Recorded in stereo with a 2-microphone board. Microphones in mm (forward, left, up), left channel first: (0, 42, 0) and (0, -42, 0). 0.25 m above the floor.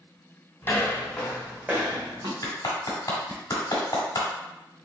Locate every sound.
0.6 s footsteps: 25° left (ahead or behind), 1.8 m; by 2.3 s 55° right (ahead or behind), 1.2 m
2.4 s a clap: 45° left (ahead or behind), 1.3 m